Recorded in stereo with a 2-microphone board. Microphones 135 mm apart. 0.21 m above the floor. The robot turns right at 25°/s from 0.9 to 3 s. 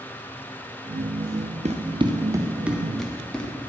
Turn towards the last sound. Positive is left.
turn(degrees=5)  # may be behind; listen again after turning